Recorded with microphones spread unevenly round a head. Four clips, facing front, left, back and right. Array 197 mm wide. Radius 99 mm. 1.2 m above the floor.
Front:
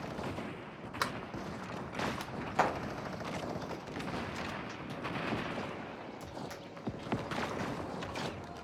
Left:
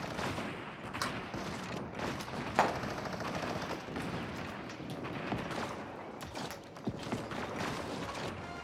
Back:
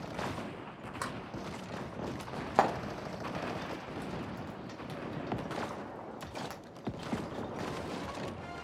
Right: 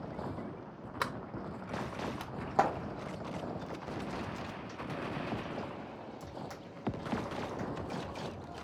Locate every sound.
1.0 s a sliding door: 70° right, 0.7 m
2.4 s frying: 175° left, 1.3 m